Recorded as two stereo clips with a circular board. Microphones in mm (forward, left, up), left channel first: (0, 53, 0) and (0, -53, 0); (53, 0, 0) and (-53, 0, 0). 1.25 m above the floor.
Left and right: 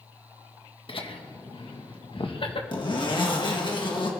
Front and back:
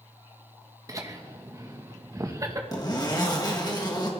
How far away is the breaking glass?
No breaking glass in this recording.